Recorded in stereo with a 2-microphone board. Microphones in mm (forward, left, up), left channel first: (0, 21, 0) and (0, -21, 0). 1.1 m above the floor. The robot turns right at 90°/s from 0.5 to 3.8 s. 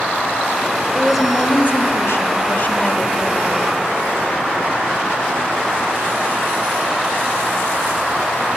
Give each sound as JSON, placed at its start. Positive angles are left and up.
{"t": 0.9, "sound": "a woman speaking", "azimuth_deg": -10, "distance_m": 1.9}